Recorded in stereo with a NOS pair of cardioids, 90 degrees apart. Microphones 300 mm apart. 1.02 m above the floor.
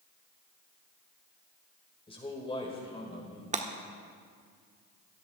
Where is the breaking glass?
25° right, 1.4 m.